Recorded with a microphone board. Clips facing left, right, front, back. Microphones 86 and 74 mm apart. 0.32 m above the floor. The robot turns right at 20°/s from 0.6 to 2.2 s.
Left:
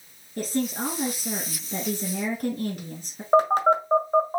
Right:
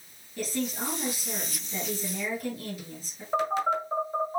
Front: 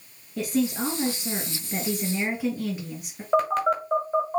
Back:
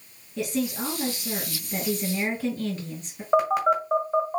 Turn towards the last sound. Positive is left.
turn(degrees=100)